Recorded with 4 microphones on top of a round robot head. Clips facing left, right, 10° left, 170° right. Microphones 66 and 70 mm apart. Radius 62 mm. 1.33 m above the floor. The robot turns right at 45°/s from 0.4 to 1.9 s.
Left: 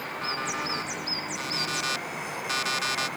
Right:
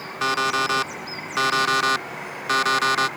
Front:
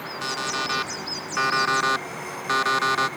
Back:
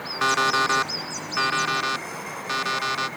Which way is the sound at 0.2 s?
120° right.